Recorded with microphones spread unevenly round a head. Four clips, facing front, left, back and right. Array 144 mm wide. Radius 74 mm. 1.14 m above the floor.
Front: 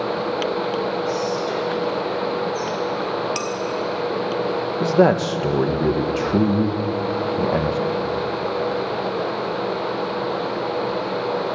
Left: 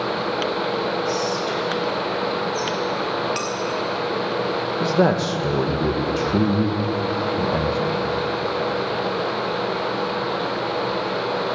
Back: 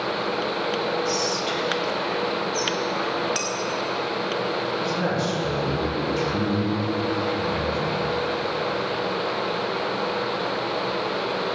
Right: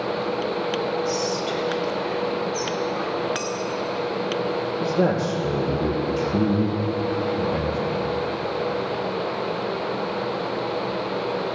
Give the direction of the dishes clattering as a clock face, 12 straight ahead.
9 o'clock.